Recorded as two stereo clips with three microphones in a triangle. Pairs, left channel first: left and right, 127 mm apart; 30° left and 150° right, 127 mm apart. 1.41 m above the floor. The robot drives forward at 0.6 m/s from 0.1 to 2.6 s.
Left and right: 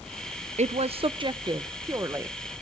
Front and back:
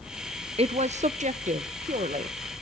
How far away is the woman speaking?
About 0.5 m.